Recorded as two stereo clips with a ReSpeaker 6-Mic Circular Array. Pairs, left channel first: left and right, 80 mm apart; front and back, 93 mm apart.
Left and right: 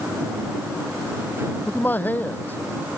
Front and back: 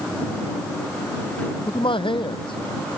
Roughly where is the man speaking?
Ahead.